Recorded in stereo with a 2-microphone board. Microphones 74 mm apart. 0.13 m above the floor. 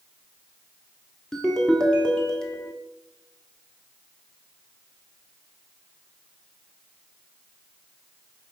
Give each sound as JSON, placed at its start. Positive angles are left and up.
{"t": 1.3, "sound": "a ringtone", "side_deg": 10, "distance_m": 1.2}